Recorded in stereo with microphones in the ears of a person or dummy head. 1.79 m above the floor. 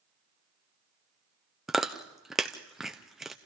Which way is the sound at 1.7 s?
5° right (ahead or behind).